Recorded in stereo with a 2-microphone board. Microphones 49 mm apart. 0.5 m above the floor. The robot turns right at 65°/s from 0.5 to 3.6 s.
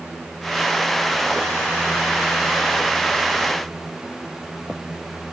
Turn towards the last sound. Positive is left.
No sound to turn to.